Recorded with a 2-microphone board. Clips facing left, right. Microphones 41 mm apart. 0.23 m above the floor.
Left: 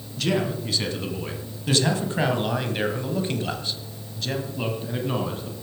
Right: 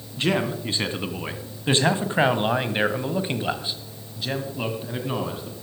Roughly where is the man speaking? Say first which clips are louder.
Right 1 dB; right.